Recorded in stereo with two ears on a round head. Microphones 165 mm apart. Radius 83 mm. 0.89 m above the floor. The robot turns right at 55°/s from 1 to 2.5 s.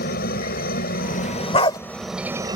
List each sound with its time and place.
0.0 s a helicopter: 120° left; by 2.6 s 155° right
1.5 s a dog barking: 35° left (ahead or behind); by 1.8 s 25° left (ahead or behind)